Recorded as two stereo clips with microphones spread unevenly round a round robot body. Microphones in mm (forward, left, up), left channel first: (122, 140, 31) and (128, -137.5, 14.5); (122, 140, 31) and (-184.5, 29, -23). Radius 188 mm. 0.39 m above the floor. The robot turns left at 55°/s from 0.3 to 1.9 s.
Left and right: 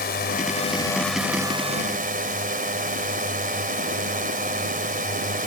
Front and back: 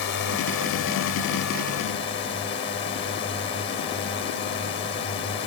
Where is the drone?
50° left; by 5.5 s 40° right.